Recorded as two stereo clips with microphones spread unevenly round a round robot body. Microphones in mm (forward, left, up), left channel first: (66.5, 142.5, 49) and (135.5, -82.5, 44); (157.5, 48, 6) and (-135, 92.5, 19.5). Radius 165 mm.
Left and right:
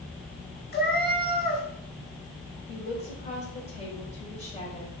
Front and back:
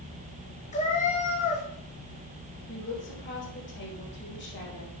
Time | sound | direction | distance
0.7 | a cat meowing | 60° left | 2.5 m
2.7 | a woman speaking | 45° left | 4 m